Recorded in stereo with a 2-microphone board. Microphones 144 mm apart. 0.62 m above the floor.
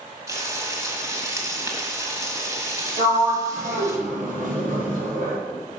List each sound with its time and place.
0.3 s frying: 25° right (ahead or behind), 1.7 m
3.0 s a sliding door: 85° right, 4 m